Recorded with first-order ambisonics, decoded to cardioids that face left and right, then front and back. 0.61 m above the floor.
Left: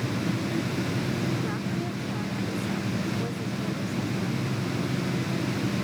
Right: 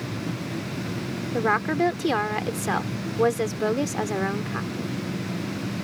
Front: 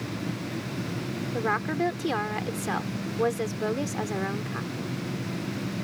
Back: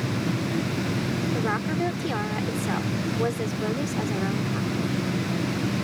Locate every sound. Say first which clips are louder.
1.3 s a woman speaking: right 9 dB, front 3 dB; 85° right